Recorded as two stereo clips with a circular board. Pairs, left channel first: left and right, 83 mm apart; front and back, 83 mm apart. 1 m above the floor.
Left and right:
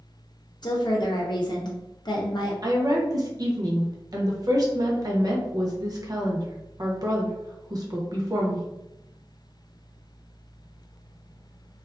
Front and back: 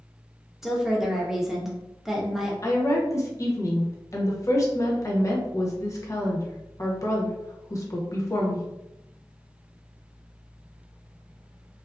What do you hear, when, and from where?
0.6 s a woman speaking: 95° left, 0.7 m
2.6 s a woman speaking: 50° right, 0.7 m